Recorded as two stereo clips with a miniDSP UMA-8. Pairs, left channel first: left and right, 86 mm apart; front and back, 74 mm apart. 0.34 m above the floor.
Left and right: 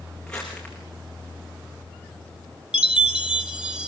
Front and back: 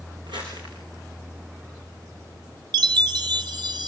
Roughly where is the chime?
Behind.